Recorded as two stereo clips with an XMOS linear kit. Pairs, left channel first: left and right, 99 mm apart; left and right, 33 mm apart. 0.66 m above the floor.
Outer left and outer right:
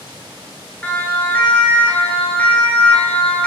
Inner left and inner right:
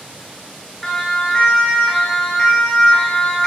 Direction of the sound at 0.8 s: 15° left (ahead or behind).